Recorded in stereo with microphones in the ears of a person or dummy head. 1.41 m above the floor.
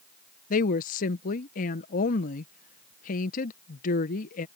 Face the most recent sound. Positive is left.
turn(degrees=45)  # may be behind; listen again after turning